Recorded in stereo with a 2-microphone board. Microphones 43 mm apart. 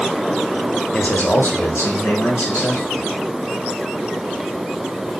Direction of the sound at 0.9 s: 30° left (ahead or behind).